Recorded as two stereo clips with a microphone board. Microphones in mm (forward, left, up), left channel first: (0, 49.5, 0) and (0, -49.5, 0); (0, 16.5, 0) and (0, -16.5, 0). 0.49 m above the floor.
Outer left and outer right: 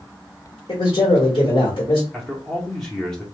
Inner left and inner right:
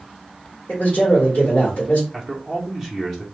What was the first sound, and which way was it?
A man speaking, 55° left (ahead or behind).